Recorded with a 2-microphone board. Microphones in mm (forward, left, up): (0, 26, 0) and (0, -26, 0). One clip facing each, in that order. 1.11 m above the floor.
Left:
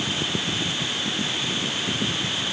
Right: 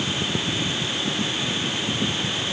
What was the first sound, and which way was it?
Only background noise.